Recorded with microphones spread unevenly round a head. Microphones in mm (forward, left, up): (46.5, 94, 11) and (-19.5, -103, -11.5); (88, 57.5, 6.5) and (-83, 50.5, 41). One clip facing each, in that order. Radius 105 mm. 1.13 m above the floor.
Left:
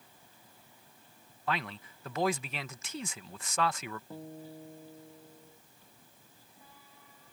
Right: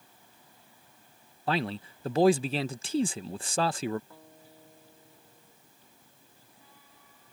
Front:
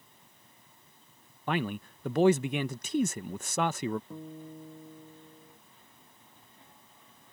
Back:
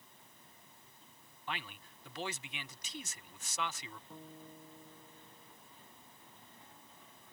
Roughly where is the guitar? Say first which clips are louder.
Left 10 dB, front 9 dB; ahead.